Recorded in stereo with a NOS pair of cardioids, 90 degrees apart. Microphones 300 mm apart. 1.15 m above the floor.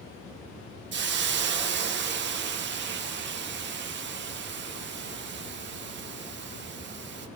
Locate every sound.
0.9 s a hiss: 40° right, 0.6 m